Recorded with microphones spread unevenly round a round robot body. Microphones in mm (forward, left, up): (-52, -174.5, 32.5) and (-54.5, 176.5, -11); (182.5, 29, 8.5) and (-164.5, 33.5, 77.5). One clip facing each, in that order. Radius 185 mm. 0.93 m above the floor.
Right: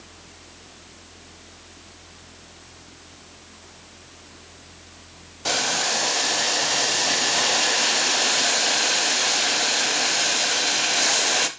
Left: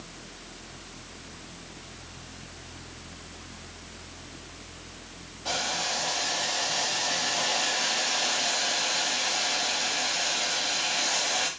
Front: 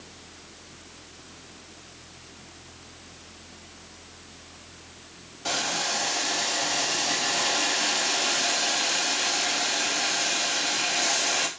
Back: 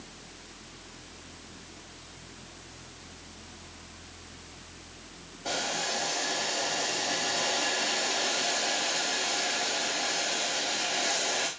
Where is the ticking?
No ticking in this recording.